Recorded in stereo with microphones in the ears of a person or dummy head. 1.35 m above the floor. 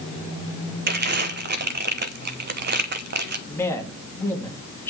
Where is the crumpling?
55° right (ahead or behind), 0.9 m.